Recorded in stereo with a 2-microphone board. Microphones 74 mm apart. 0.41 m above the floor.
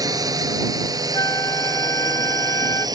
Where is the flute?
55° left (ahead or behind).